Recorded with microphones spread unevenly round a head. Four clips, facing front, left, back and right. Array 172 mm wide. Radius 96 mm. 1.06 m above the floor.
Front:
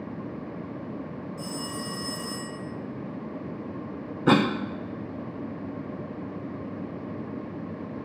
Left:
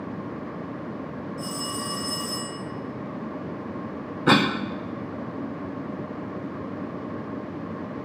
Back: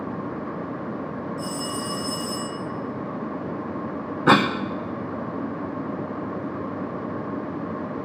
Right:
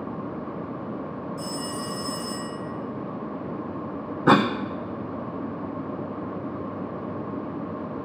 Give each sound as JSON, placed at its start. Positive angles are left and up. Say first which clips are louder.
{"t": 1.4, "sound": "a phone ringing", "louder": "left 1 dB, back 5 dB", "azimuth_deg": -45, "distance_m": 8.0}
{"t": 4.3, "sound": "a cough", "louder": "right 2 dB, back 3 dB", "azimuth_deg": -150, "distance_m": 0.8}